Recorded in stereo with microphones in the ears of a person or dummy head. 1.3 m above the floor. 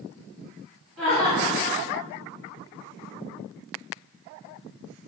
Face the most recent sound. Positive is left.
turn(degrees=5)  # may be behind; listen again after turning